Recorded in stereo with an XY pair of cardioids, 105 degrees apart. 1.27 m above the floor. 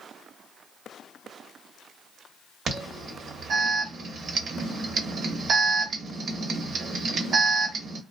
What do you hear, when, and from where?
2.7 s an alarm: 55° right, 0.9 m